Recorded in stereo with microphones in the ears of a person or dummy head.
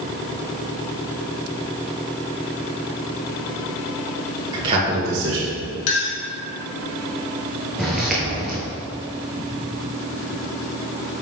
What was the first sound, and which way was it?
A man speaking, 25° right (ahead or behind).